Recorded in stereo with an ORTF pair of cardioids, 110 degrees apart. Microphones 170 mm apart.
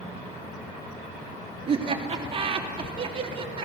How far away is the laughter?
About 3 m.